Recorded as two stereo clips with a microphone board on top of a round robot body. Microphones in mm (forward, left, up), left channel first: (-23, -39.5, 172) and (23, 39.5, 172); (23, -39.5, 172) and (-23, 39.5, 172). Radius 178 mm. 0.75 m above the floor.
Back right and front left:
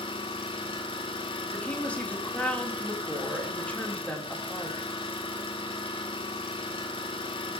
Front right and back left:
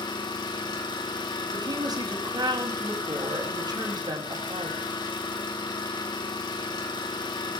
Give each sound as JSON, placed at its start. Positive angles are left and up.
{"t": 0.0, "sound": "an engine running", "azimuth_deg": -100, "distance_m": 4.5}
{"t": 1.5, "sound": "a woman speaking", "azimuth_deg": 165, "distance_m": 6.5}